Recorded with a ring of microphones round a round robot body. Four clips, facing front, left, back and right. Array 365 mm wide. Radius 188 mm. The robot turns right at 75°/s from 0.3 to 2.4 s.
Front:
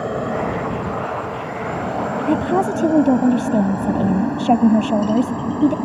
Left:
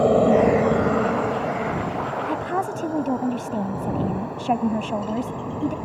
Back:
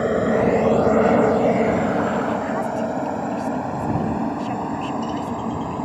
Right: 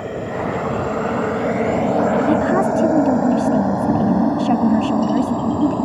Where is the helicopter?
115° left; by 5.8 s 70° right.